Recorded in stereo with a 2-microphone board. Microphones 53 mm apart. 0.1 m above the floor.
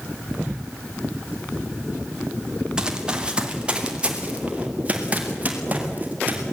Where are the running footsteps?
15° right (ahead or behind), 3.5 m; by 6.4 s 30° right (ahead or behind), 6.5 m.